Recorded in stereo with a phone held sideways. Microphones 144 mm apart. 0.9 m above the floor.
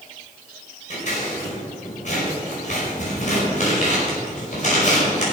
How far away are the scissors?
About 5.5 m.